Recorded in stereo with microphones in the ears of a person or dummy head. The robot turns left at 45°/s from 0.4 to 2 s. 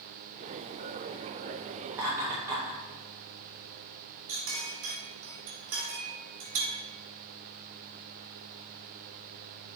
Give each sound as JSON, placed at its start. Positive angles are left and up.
{"t": 1.9, "sound": "laughter", "side_deg": -10, "distance_m": 0.7}
{"t": 4.3, "sound": "a clink", "side_deg": -45, "distance_m": 2.5}